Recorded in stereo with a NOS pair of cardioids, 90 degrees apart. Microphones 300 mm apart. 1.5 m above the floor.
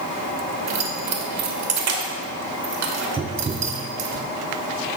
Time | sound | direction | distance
0.7 | keys jangling | 60° right | 1.4 m
3.2 | tapping | 20° right | 0.5 m